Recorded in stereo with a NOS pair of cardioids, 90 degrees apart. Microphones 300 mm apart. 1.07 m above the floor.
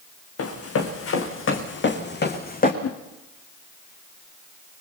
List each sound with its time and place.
0.4 s running footsteps: 55° left, 5 m; by 2.7 s 30° left, 4 m
2.8 s a whoosh: 55° left, 2 m